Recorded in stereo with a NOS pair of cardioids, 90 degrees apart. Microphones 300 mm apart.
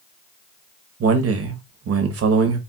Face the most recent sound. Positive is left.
turn(degrees=-50)